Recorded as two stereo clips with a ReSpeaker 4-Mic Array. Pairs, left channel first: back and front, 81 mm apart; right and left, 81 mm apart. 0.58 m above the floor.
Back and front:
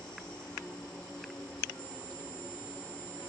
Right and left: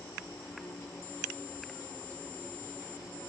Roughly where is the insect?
Behind right.